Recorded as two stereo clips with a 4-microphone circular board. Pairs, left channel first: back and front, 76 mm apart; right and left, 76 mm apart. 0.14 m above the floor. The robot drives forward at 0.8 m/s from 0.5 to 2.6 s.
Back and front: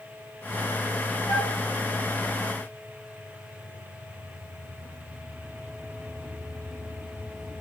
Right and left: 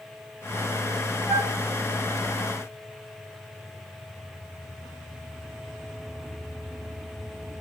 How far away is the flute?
About 3.5 m.